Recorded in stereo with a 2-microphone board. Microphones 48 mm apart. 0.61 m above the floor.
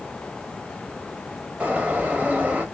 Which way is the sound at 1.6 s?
25° right (ahead or behind).